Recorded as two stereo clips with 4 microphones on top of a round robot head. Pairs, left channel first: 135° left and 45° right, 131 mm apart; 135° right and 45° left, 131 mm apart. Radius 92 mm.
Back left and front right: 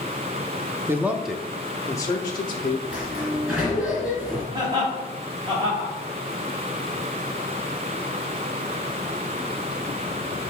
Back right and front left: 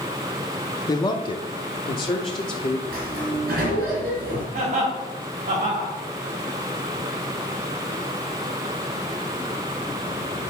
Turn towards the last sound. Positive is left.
turn(degrees=15)